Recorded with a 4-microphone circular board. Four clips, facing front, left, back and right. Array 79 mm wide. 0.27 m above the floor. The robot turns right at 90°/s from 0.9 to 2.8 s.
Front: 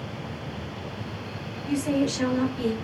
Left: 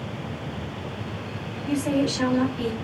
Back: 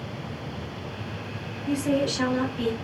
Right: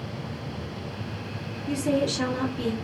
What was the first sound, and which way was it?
A woman speaking, 90° left.